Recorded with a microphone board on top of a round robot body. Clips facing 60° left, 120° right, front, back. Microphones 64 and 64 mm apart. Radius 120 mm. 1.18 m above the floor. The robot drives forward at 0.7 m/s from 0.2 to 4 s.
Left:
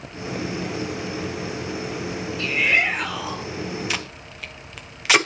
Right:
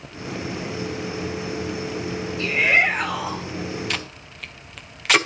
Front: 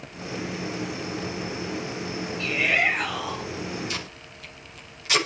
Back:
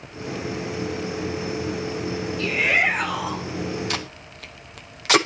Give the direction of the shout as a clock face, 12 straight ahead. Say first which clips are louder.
Right 2 dB, back 2 dB; 6 o'clock.